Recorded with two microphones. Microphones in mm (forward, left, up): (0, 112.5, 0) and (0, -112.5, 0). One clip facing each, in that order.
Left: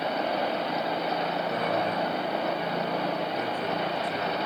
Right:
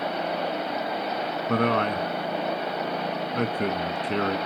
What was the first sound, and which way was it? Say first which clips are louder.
A man speaking: right 9 dB; 75° right (ahead or behind).